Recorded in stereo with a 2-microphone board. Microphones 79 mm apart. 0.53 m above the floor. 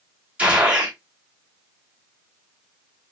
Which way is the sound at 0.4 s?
15° right (ahead or behind).